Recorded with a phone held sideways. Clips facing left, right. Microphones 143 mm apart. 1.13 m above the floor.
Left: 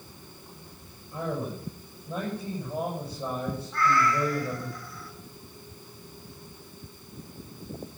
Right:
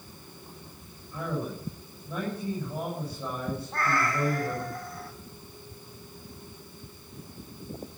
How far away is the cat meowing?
About 2 m.